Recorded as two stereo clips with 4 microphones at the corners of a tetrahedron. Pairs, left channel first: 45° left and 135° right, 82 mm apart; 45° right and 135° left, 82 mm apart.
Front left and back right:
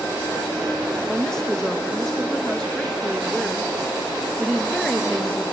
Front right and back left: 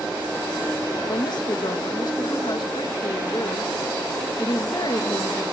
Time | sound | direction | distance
1.0 | a woman speaking | 40° right | 1.2 m